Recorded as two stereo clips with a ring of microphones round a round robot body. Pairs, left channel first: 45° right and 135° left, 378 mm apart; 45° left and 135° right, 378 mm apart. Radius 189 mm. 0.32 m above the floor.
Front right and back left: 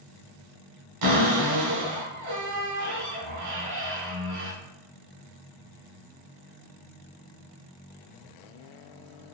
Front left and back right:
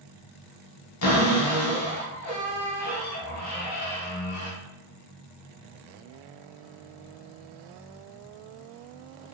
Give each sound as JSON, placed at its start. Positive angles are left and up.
{"t": 1.0, "sound": "a cupboard door", "azimuth_deg": 95, "distance_m": 0.9}